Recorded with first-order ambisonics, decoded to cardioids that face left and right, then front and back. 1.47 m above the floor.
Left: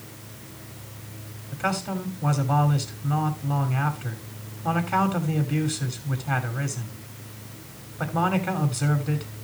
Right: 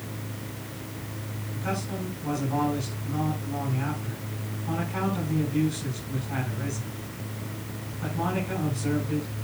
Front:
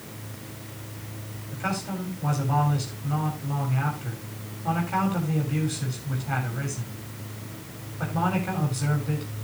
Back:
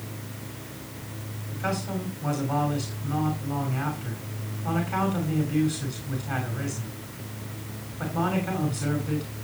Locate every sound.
1.5 s a man speaking: 85° left, 7 m